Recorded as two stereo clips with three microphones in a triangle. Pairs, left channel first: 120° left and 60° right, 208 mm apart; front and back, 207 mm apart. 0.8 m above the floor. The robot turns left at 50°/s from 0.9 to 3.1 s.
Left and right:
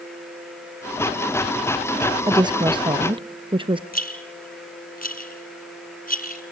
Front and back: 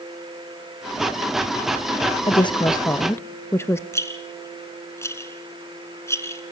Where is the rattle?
75° left, 1.8 m.